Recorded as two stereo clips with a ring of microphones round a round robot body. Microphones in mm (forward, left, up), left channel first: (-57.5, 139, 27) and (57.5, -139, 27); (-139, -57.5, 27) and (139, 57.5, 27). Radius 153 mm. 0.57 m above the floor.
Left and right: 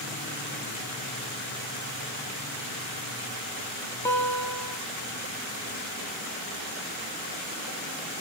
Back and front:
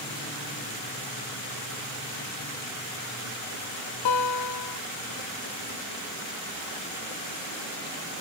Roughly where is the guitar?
Behind.